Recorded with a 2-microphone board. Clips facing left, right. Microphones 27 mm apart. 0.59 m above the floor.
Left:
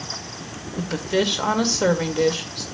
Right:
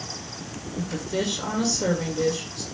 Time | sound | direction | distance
0.8 | a woman speaking | 45° left (ahead or behind) | 1.8 m